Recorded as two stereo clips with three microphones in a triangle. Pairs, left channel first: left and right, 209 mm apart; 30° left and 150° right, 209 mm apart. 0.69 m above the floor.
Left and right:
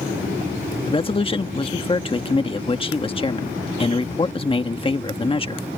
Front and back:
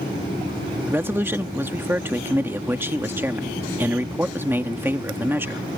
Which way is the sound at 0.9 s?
135° left.